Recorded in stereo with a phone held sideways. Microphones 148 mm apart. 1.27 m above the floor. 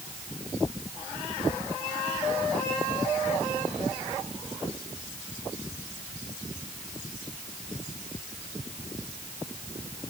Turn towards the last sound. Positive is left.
No sound to turn to.